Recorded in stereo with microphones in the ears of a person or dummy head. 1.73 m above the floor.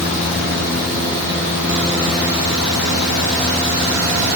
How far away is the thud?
No thud in this recording.